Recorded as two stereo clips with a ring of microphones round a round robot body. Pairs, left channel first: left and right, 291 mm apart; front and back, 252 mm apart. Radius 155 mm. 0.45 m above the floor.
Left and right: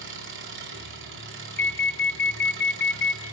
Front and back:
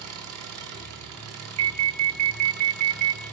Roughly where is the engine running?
Behind right.